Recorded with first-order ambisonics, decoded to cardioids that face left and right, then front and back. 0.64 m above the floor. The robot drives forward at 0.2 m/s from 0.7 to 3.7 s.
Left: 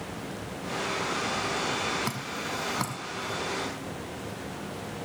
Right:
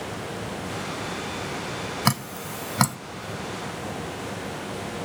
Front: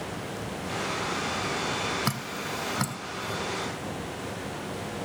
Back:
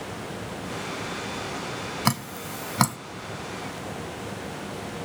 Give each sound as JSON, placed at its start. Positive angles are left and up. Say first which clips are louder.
{"t": 2.0, "sound": "dripping", "louder": "right 5 dB, back 3 dB", "azimuth_deg": -125, "distance_m": 0.7}